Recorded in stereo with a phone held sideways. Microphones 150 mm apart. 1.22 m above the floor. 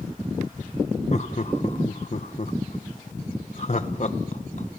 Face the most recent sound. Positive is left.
turn(degrees=50)  # may be behind; listen again after turning